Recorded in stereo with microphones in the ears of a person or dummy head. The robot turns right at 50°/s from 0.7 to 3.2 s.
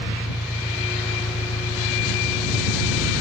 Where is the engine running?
15° left; by 3.2 s 140° left.